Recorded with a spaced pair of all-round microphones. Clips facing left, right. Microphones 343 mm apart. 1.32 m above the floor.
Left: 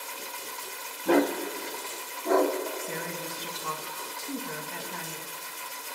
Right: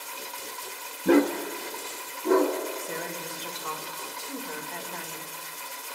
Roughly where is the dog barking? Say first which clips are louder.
Right 3 dB; right.